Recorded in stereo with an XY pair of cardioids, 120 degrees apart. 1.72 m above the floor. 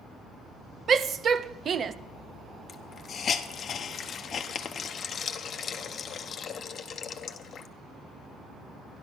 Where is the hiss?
45° left, 0.9 m.